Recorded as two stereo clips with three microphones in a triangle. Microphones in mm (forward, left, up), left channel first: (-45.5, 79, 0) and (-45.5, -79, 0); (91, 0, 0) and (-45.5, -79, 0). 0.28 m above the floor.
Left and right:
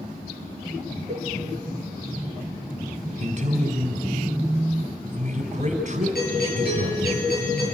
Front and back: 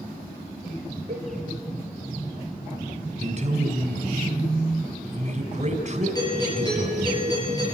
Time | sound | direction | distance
1.1 | a cowbell | 160° left | 5 m
3.2 | a man speaking | 120° right | 2.5 m
6.2 | a doorbell | 95° left | 7.5 m